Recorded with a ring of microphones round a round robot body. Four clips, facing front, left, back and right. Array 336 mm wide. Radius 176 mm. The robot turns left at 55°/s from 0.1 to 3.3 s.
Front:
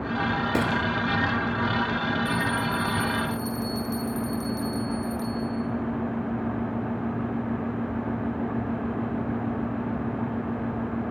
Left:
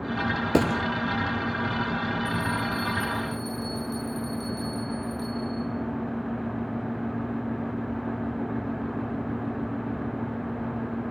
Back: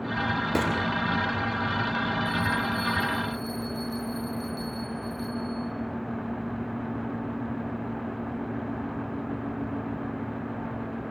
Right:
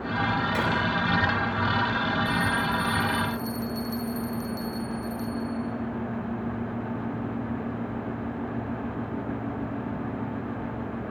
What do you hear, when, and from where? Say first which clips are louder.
0.5 s a gunshot: left 3 dB, front 1 dB; 90° left, 2.5 m; by 0.8 s 75° left, 2.5 m
2.2 s a bell: right 2 dB, front 1 dB; 15° left, 9 m; by 5.6 s 40° right, 9 m